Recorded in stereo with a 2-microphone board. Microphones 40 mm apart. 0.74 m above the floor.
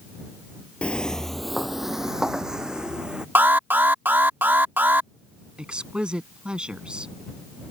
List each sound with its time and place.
0.8 s footsteps: 30° left (ahead or behind); by 3.2 s 20° right (ahead or behind)
3.4 s an alarm: 60° right (ahead or behind)
5.6 s a woman speaking: 20° right (ahead or behind)